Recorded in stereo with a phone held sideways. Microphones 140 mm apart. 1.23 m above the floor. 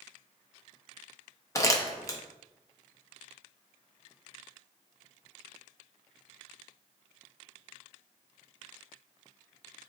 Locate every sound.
1.6 s crumpling: 25° left (ahead or behind), 0.5 m